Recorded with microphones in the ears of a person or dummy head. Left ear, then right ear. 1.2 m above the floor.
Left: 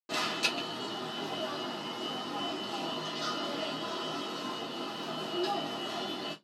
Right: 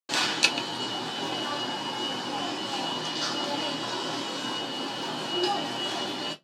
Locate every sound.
0.1 s an alarm: 30° right (ahead or behind), 0.6 m